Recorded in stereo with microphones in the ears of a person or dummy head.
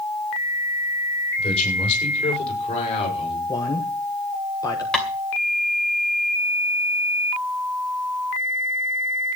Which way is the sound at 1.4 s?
35° left (ahead or behind).